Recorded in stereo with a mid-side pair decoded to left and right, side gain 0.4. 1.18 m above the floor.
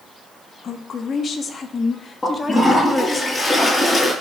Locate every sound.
0.6 s a woman speaking: 60° left, 2.5 m; by 3.2 s 25° left, 2.5 m
2.2 s a toilet flushing: 30° left, 8.5 m